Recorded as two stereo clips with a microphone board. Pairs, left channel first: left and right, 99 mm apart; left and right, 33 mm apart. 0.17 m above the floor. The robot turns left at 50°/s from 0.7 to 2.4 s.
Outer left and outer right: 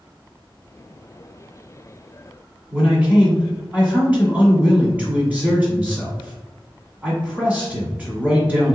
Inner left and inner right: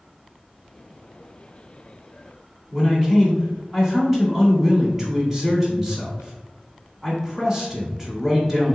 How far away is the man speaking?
About 1.2 m.